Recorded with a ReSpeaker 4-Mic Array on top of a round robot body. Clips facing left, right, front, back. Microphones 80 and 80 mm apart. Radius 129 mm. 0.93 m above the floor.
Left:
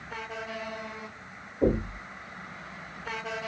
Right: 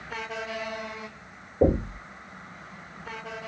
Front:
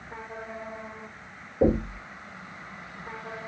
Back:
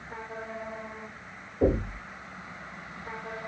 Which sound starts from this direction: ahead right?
Knocking, at 1.6 s.